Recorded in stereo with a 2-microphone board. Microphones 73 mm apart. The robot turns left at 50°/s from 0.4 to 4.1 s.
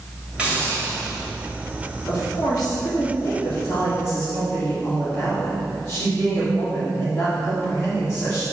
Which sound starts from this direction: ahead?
A hiss, at 0.4 s.